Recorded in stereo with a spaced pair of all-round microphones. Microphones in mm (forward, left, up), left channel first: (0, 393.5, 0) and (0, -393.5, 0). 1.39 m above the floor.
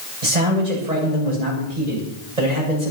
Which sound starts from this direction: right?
A man speaking, at 0.2 s.